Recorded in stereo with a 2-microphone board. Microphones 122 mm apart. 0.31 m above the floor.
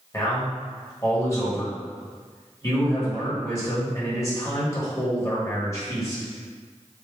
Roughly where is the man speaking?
Left.